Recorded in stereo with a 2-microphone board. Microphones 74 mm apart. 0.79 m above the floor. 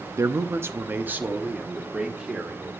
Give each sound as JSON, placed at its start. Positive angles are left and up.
{"t": 0.2, "sound": "a man speaking", "side_deg": -40, "distance_m": 0.6}